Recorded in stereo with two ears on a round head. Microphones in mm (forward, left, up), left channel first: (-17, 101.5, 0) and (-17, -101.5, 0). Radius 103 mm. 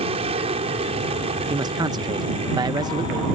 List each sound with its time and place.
0.0 s an aircraft: 25° right (ahead or behind)
1.5 s a man speaking: 20° right (ahead or behind)